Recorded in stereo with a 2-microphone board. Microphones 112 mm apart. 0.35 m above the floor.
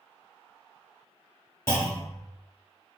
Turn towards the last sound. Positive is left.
turn(degrees=25)  # may be behind; listen again after turning